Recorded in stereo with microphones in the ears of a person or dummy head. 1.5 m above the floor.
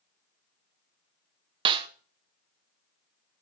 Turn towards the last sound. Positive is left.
turn(degrees=-30)  # may be behind; listen again after turning